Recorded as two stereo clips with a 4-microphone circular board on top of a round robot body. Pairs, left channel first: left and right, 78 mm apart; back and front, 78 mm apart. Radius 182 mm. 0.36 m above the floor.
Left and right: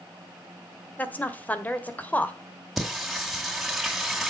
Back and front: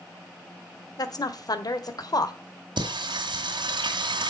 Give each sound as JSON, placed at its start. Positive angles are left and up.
{"t": 1.0, "sound": "a woman speaking", "azimuth_deg": 155, "distance_m": 1.8}
{"t": 2.8, "sound": "singing", "azimuth_deg": 0, "distance_m": 2.5}